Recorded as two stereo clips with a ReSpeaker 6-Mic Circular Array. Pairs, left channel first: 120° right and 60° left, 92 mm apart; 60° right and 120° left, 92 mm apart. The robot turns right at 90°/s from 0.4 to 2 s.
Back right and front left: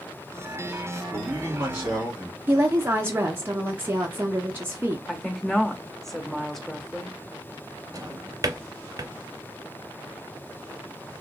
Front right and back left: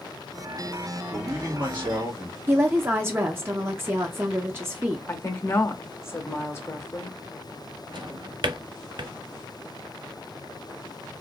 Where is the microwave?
I don't hear a microwave.